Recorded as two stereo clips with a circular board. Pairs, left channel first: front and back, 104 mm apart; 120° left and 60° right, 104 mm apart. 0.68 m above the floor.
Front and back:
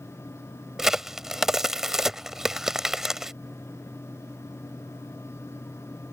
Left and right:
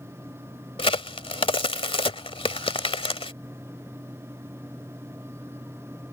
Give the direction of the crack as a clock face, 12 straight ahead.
9 o'clock.